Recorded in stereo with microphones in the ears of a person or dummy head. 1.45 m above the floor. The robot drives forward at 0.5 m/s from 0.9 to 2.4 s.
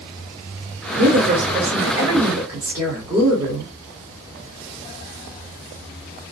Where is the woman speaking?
50° right (ahead or behind), 0.7 m; by 3.7 s 25° right (ahead or behind), 1.3 m.